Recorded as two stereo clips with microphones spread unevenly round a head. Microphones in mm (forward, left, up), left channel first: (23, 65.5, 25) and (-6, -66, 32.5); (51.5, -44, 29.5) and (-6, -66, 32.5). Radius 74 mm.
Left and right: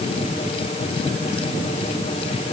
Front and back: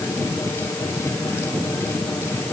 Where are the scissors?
No scissors in this recording.